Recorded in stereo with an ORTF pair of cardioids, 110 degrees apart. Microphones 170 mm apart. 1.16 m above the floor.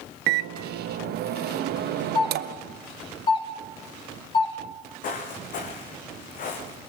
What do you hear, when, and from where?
0.3 s a microwave: 70° right, 1.1 m
2.1 s a doorbell: 30° left, 6 m
5.0 s footsteps: 55° left, 4 m